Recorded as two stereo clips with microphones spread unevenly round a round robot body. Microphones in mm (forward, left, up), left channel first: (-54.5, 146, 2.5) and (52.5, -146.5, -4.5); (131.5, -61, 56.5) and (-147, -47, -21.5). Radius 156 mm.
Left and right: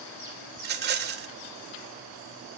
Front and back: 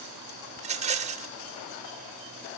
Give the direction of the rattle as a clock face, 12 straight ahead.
4 o'clock.